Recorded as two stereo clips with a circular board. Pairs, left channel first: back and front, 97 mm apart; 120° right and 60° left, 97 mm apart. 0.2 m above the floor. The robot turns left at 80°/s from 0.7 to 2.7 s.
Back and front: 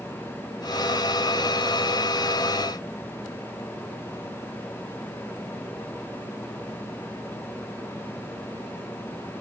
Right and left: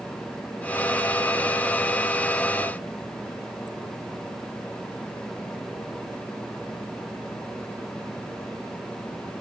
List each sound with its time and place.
Only background noise.